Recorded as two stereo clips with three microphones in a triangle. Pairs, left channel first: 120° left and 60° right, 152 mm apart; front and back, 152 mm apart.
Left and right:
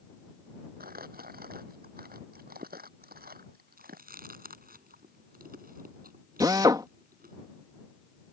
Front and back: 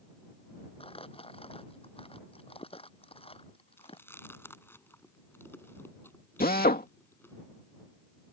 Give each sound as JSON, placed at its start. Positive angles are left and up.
{"t": 0.8, "sound": "crumpling", "azimuth_deg": -50}
{"t": 3.8, "sound": "chewing", "azimuth_deg": -75}
{"t": 6.4, "sound": "a drill", "azimuth_deg": 5}